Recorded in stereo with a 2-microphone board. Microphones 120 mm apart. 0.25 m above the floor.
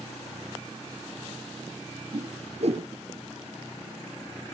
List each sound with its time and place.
2.1 s a whoosh: 60° right (ahead or behind), 1.2 m